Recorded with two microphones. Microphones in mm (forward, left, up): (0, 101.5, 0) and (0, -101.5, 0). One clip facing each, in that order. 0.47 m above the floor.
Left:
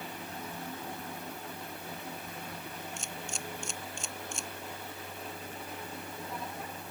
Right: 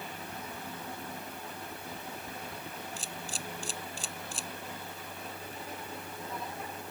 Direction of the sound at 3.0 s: 35° right (ahead or behind).